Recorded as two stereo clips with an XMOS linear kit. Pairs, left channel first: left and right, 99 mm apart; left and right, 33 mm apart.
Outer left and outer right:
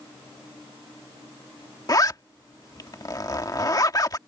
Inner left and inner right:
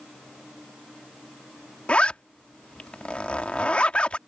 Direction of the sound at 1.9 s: 40° left (ahead or behind).